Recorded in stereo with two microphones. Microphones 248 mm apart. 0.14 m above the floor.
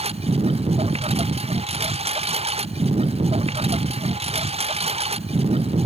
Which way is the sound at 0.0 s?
25° right (ahead or behind).